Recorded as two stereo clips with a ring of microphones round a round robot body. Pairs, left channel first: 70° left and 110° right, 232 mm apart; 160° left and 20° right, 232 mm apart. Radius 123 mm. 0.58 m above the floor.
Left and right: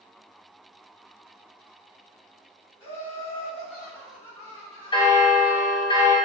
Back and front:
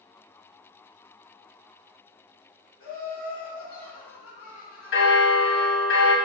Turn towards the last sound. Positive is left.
turn(degrees=135)